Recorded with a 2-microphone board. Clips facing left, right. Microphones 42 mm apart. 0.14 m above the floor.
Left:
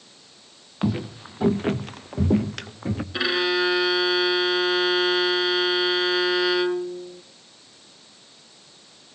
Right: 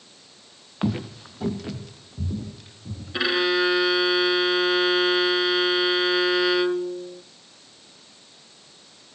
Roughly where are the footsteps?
Centre.